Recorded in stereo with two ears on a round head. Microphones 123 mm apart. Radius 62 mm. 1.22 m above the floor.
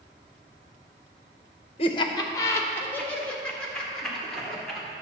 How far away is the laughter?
About 0.8 m.